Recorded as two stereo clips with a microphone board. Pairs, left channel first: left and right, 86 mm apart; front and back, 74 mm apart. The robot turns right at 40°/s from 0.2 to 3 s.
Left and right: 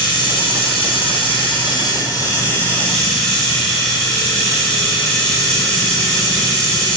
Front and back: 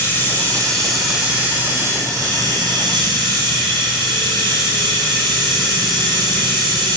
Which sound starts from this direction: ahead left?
Running water, at 0.0 s.